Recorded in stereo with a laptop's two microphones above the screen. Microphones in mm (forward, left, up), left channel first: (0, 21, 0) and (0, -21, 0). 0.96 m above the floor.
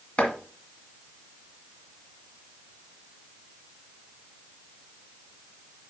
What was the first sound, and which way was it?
Chopping, 25° left (ahead or behind).